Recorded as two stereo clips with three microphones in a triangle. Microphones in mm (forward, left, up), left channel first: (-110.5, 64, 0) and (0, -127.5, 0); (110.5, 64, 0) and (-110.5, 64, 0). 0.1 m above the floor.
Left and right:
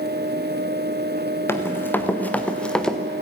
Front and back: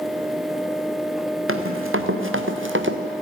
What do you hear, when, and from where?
1.5 s running footsteps: 160° right, 2.5 m; by 3.0 s 150° right, 1.7 m